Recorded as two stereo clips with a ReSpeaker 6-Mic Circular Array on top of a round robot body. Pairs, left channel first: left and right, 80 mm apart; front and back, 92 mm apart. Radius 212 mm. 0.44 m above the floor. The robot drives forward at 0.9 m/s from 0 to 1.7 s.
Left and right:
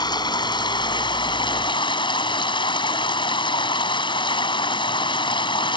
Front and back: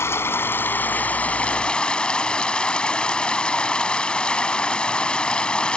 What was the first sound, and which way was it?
Running water, 65° left.